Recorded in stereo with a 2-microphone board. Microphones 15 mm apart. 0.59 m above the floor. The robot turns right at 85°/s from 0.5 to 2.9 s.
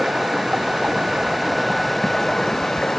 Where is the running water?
115° right; by 3.0 s 90° left.